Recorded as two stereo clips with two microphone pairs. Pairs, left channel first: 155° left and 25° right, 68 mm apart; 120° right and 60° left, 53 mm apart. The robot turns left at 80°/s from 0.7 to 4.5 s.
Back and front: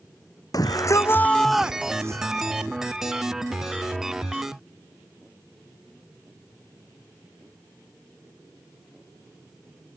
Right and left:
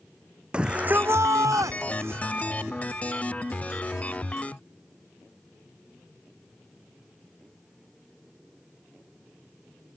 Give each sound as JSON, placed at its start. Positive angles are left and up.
{"t": 0.5, "sound": "a shout", "azimuth_deg": 135}